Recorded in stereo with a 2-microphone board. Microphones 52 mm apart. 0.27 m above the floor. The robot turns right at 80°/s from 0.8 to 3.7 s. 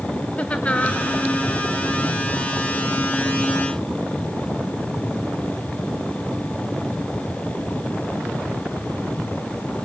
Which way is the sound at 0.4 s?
25° left (ahead or behind).